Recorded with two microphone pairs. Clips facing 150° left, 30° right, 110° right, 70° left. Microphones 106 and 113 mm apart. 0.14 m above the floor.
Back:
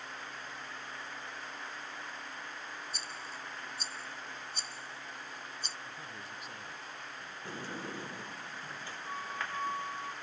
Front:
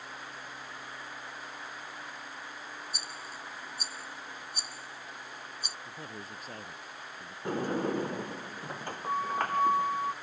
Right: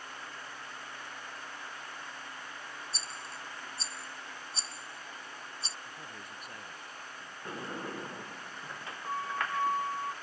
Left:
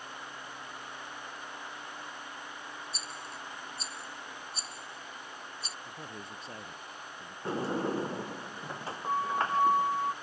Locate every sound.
2.9 s a rattle: 95° right
5.8 s a man speaking: 10° left
7.5 s a sliding door: 10° left